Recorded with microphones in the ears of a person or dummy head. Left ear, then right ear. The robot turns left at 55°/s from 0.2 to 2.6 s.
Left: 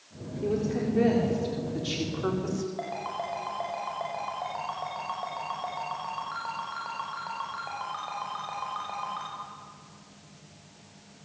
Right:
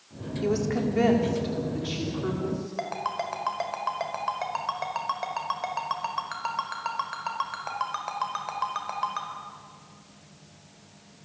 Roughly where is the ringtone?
Right.